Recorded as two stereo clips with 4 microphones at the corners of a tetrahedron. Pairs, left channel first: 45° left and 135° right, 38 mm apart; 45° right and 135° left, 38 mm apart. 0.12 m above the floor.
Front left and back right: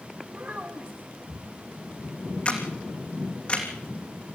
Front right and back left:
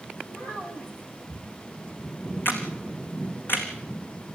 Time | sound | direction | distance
0.3 | a child speaking | 85° right | 5.5 m
2.5 | a camera shutter | 20° right | 3.5 m